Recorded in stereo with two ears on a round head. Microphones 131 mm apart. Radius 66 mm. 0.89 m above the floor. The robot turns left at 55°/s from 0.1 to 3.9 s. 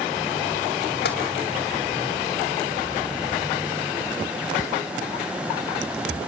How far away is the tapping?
About 3 m.